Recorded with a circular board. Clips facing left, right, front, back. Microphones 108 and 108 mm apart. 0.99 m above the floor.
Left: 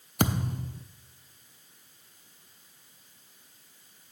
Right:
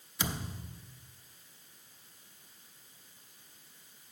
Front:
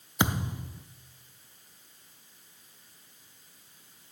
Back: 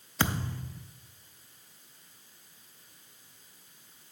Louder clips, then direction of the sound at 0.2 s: Left 10 dB, front 2 dB; 70° left.